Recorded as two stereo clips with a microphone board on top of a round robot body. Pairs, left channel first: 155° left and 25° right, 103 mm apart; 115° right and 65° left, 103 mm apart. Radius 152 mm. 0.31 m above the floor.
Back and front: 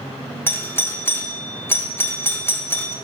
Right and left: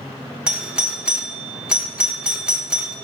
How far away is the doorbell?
About 1.6 m.